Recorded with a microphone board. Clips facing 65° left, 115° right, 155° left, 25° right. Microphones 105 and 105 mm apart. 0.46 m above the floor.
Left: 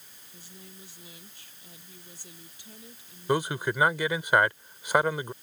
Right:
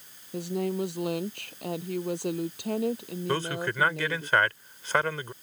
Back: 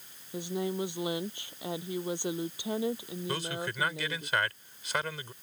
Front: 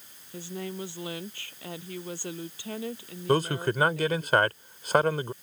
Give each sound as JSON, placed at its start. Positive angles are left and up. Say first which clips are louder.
{"t": 0.3, "sound": "a woman speaking", "louder": "right 23 dB, back 4 dB", "azimuth_deg": -130}
{"t": 3.3, "sound": "a man speaking", "louder": "left 3 dB, front 12 dB", "azimuth_deg": -5}